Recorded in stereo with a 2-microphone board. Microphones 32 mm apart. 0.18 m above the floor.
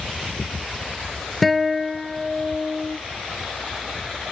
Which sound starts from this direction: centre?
A guitar, at 1.4 s.